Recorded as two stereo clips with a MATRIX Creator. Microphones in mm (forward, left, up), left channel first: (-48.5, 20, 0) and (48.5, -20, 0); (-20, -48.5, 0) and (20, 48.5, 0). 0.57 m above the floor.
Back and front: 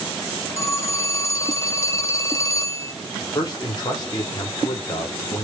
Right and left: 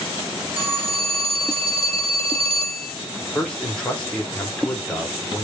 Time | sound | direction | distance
0.6 | a phone ringing | 95° left | 0.8 m
3.4 | a man speaking | 175° left | 1.5 m